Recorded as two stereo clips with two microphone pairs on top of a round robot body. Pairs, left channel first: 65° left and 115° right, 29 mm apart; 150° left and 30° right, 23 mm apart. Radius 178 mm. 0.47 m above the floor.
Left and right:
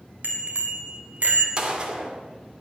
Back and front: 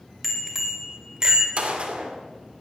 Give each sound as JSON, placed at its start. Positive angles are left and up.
{"t": 0.2, "sound": "a bicycle bell", "azimuth_deg": -110, "distance_m": 2.5}
{"t": 1.6, "sound": "a gunshot", "azimuth_deg": -55, "distance_m": 2.0}